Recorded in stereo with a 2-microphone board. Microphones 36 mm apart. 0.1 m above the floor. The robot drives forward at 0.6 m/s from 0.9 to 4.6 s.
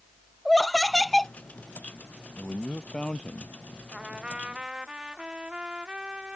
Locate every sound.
0.5 s laughter: centre (ahead or behind)
2.4 s a man speaking: 15° left (ahead or behind); by 3.8 s 20° left (ahead or behind)
3.9 s a trumpet: 25° right (ahead or behind)